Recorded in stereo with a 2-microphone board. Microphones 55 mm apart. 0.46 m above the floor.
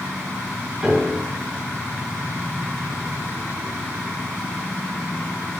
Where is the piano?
10° right (ahead or behind), 4.5 m.